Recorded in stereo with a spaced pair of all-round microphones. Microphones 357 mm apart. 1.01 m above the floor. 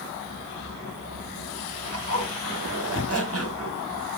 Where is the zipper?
40° right (ahead or behind), 1.7 m.